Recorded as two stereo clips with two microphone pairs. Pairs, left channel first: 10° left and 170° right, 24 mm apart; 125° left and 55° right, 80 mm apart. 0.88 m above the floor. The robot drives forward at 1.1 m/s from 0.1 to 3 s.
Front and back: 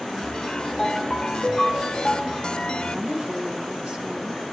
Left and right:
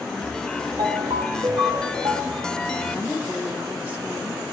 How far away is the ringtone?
About 3.5 m.